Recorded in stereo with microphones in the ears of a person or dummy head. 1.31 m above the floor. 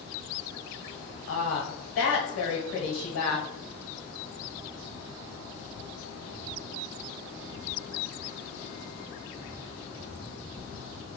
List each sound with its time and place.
1.3 s a woman speaking: 70° left (ahead or behind), 1.0 m